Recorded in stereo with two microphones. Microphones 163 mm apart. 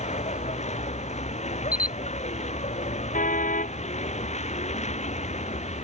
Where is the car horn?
50° left (ahead or behind).